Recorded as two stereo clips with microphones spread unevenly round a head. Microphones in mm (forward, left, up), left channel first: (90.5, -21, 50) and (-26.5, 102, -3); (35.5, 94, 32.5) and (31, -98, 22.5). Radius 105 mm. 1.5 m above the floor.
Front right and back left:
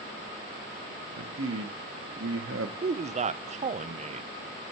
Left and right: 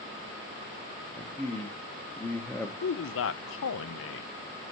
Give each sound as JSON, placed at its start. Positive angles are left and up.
{"t": 1.2, "sound": "a man speaking", "azimuth_deg": 170, "distance_m": 0.9}
{"t": 2.8, "sound": "a man speaking", "azimuth_deg": 95, "distance_m": 0.7}